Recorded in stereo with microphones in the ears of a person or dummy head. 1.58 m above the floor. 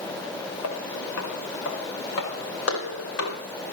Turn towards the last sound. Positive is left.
turn(degrees=70)  # may be behind; listen again after turning